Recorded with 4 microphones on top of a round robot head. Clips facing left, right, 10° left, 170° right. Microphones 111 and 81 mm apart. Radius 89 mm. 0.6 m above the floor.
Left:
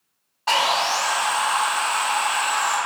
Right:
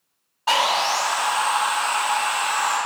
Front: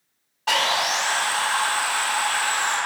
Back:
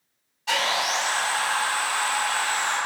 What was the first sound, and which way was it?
Sawing, 5° right.